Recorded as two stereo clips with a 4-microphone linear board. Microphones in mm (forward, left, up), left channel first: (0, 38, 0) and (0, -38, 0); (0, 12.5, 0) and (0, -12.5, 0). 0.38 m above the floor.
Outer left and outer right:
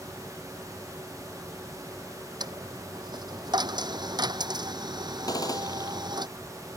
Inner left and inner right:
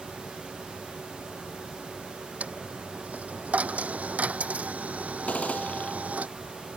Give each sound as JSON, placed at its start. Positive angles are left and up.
{"t": 2.4, "sound": "a dropped coin", "side_deg": -70}
{"t": 5.3, "sound": "a gunshot", "side_deg": 60}